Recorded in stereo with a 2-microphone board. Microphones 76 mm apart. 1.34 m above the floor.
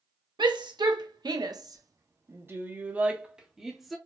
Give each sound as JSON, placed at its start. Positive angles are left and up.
{"t": 0.4, "sound": "a shout", "side_deg": -80, "distance_m": 1.3}